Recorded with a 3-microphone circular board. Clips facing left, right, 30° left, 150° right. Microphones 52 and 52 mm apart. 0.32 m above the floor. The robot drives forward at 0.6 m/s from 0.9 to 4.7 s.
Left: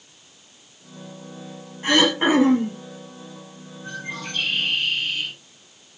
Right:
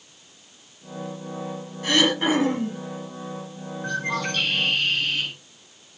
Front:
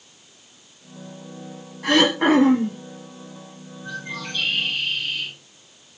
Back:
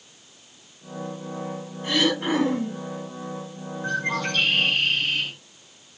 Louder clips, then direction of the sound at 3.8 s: Right 6 dB, back 6 dB; 125° right.